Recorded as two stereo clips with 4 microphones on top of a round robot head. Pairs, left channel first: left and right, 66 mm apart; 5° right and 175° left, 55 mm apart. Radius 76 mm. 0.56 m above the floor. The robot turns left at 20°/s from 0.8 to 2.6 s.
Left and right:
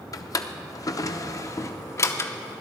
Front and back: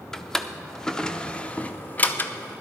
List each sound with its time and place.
0.1 s a drawer: 75° left, 0.8 m; by 2.3 s 45° left, 0.8 m